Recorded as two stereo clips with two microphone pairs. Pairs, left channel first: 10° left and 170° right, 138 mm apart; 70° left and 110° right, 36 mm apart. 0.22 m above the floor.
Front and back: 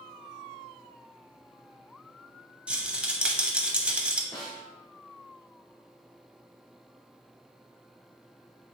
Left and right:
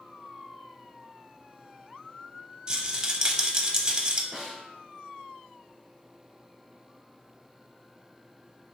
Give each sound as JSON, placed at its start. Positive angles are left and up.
{"t": 2.7, "sound": "a rattle", "azimuth_deg": -105, "distance_m": 0.5}
{"t": 4.3, "sound": "a snare drum", "azimuth_deg": -40, "distance_m": 1.2}